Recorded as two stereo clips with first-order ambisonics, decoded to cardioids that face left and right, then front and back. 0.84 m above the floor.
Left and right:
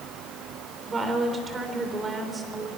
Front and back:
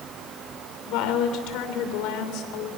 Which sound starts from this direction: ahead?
A woman speaking, at 0.9 s.